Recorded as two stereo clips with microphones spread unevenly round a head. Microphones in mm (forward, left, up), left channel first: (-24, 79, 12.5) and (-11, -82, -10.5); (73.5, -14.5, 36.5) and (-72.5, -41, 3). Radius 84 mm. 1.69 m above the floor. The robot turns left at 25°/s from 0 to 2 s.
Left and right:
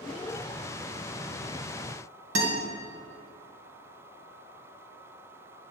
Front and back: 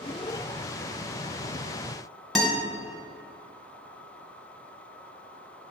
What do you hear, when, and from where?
2.4 s a guitar: 80° right, 1.9 m